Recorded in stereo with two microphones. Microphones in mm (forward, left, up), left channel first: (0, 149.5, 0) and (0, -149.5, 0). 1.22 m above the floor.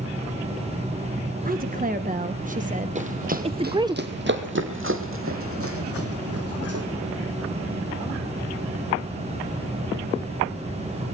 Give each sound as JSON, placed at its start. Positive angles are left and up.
{"t": 1.4, "sound": "a woman speaking", "side_deg": -30, "distance_m": 1.7}
{"t": 3.0, "sound": "running footsteps", "side_deg": -25, "distance_m": 2.0}